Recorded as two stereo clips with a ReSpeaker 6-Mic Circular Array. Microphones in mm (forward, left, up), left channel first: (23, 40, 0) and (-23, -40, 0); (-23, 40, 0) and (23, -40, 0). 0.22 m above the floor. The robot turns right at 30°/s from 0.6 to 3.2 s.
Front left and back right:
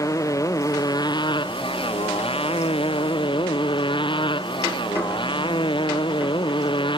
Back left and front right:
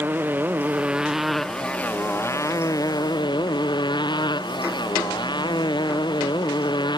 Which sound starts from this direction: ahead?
A motorcycle, at 0.0 s.